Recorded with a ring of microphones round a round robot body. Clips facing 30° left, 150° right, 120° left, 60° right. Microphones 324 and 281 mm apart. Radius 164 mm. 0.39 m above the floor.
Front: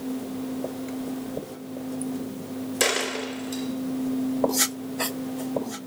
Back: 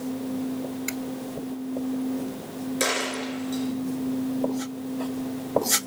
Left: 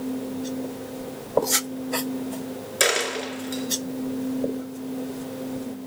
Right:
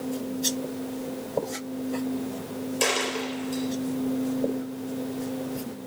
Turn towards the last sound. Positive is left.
turn(degrees=115)